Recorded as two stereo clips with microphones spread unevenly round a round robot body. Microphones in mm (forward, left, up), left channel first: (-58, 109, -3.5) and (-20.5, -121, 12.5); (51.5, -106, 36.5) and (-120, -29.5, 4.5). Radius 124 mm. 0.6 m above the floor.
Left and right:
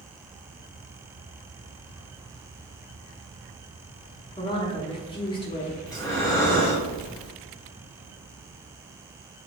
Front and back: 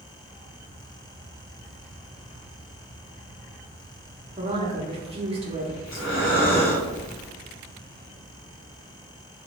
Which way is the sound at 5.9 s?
25° left.